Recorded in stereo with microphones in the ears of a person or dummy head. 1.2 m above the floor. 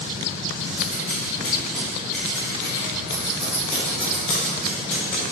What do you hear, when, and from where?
0.8 s scissors: 5° left (ahead or behind), 0.8 m